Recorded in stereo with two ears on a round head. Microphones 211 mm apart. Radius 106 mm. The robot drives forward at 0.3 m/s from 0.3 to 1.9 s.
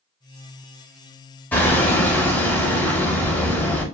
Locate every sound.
1.5 s hammering: 5° left (ahead or behind), 0.7 m